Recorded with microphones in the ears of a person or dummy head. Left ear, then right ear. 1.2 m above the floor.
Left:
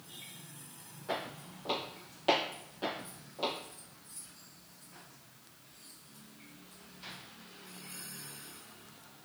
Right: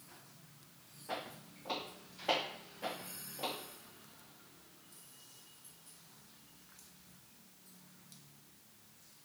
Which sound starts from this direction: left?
Footsteps, at 1.1 s.